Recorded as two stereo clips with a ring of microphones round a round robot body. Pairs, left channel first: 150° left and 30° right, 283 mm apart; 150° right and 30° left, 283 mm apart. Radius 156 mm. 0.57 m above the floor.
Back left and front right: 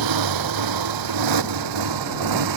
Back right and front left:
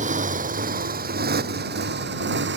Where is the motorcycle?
35° right; by 2.6 s 25° right.